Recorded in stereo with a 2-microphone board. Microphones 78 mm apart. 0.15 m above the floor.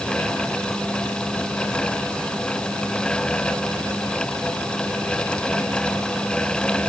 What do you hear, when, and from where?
Only background noise.